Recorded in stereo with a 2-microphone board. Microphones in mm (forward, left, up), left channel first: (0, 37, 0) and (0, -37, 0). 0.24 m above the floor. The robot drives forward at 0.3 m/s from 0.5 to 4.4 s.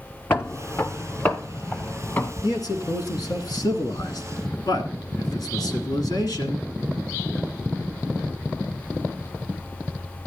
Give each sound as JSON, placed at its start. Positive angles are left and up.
{"t": 0.3, "sound": "footsteps", "side_deg": 30, "distance_m": 0.6}
{"t": 2.4, "sound": "a man speaking", "side_deg": 60, "distance_m": 2.0}